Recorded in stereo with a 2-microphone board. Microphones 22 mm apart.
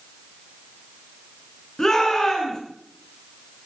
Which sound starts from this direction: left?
A shout, at 1.8 s.